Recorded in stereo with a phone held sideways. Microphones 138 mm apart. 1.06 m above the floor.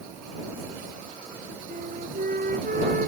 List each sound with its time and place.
1.7 s a flute: 80° right